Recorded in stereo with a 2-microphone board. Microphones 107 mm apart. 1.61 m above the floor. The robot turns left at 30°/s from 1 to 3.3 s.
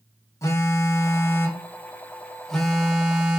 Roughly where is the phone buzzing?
Ahead left.